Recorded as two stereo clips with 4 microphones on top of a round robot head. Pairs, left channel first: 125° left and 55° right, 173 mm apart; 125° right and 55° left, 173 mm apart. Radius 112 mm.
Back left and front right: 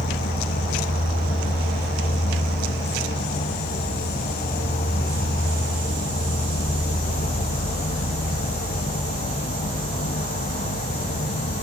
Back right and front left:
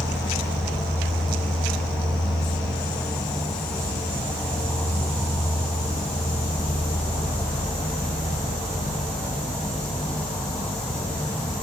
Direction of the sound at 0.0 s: 150° left.